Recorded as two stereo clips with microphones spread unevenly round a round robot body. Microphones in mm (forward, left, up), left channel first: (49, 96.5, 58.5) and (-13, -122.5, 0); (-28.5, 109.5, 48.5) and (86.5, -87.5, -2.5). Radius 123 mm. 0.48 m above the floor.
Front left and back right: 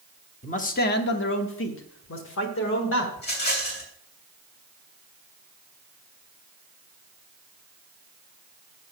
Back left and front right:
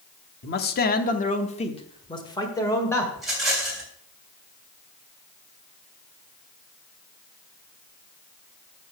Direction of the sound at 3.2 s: 25° left.